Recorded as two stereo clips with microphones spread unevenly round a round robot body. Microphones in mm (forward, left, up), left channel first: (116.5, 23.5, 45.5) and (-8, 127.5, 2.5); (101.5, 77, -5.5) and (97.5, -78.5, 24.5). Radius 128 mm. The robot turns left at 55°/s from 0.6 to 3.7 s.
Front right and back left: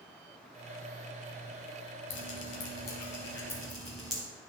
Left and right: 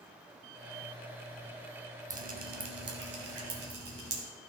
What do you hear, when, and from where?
2.1 s dripping: 50° right, 1.1 m; by 4.2 s 135° right, 1.1 m